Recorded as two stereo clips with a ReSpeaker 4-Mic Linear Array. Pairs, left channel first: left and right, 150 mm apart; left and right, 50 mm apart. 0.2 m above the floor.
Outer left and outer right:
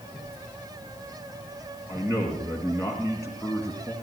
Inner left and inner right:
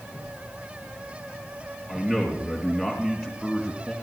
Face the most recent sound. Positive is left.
turn(degrees=20)  # may be behind; listen again after turning